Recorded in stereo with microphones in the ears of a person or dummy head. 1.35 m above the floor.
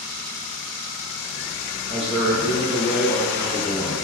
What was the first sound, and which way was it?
A man speaking, 30° right (ahead or behind).